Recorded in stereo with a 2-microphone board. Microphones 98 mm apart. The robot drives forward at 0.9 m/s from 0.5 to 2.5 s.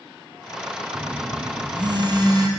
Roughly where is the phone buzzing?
Right.